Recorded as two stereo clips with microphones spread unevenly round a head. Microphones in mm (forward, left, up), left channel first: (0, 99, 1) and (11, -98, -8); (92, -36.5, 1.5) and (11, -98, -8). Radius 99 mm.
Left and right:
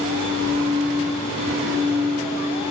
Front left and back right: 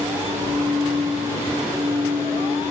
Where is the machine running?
155° left, 9 m.